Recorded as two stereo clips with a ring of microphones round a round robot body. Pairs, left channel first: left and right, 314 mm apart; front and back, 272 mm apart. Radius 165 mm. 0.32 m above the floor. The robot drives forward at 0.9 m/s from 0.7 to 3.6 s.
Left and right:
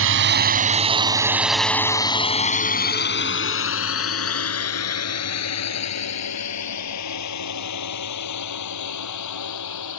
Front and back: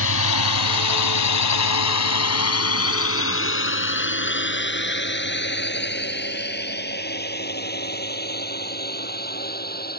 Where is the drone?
45° right; by 10.0 s 55° left.